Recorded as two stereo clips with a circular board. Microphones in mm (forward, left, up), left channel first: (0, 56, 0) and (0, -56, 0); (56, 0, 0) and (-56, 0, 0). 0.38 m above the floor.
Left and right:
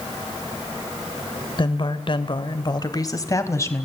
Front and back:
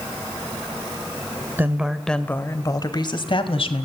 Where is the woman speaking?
115° left, 1.1 m; by 3.9 s 25° left, 2.5 m.